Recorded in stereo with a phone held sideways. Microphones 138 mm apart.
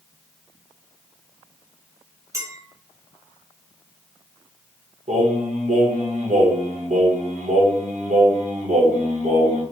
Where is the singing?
60° right (ahead or behind), 1.0 m.